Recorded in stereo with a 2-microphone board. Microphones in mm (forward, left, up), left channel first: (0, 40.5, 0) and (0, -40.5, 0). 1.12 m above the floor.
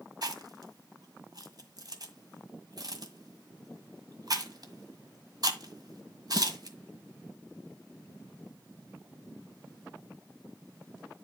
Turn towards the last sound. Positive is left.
turn(degrees=-55)  # may be behind; listen again after turning